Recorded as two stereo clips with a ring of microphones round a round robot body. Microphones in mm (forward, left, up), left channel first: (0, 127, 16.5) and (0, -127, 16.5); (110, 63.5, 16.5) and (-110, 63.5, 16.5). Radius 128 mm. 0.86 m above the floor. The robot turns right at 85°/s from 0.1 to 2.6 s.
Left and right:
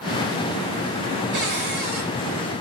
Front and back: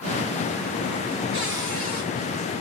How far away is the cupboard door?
About 2.5 m.